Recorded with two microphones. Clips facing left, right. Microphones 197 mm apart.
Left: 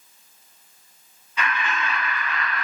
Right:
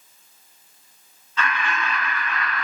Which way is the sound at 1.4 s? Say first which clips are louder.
Right 1 dB; 15° left (ahead or behind).